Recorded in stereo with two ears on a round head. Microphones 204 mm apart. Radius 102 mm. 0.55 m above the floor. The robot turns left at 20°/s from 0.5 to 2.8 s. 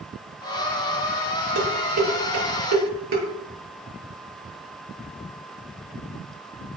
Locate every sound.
1.6 s dishes clattering: 85° right, 8 m; by 3.2 s 70° right (ahead or behind), 8 m